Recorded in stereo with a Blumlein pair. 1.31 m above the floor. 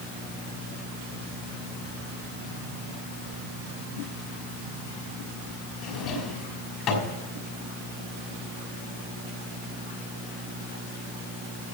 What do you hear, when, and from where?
5.8 s a drawer: 35° left, 3 m